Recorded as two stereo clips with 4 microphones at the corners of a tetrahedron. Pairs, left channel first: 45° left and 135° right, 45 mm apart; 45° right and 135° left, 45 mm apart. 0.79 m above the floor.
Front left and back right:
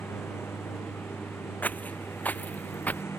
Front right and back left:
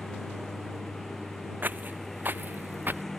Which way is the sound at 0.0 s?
40° left.